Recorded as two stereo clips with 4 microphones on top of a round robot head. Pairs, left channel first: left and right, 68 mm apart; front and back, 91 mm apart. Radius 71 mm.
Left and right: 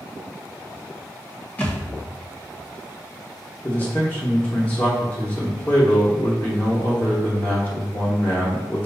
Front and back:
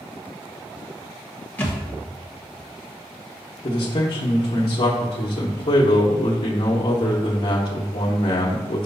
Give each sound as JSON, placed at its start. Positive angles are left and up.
{"t": 1.6, "sound": "a thud", "azimuth_deg": 45, "distance_m": 1.0}
{"t": 3.6, "sound": "a man speaking", "azimuth_deg": 25, "distance_m": 1.0}